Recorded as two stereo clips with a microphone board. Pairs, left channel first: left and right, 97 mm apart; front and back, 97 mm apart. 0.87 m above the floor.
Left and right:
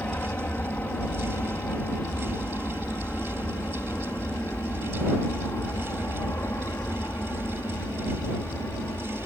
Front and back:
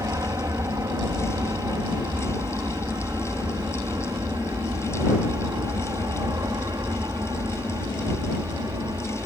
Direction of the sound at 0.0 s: 150° left.